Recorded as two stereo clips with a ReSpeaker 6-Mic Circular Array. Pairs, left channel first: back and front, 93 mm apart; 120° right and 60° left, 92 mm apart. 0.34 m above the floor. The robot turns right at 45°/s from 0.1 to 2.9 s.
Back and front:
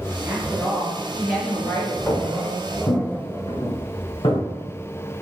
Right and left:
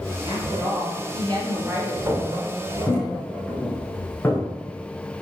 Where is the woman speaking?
55° left, 5 m; by 2.0 s 130° left, 5 m.